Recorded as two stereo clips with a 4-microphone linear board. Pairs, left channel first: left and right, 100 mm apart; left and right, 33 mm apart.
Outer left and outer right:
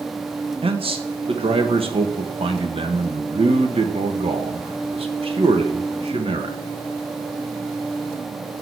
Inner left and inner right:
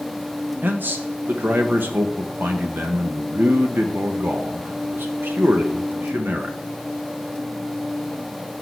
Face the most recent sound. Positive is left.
turn(degrees=-65)  # may be behind; listen again after turning